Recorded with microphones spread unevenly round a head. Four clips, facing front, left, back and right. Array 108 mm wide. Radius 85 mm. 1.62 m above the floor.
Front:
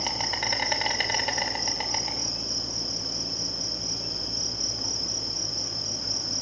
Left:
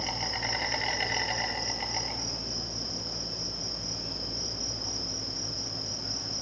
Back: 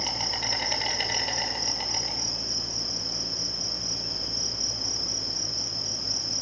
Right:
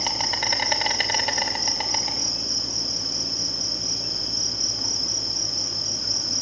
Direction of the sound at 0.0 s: 90° right.